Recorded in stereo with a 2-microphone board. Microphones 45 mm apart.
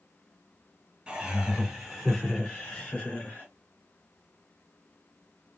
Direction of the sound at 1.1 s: 15° right (ahead or behind).